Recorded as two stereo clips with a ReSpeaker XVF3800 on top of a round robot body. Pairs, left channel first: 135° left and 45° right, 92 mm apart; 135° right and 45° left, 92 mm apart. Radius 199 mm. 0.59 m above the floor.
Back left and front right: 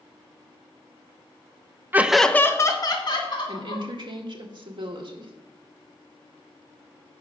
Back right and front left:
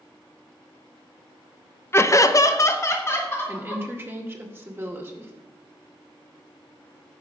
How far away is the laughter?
About 1.0 m.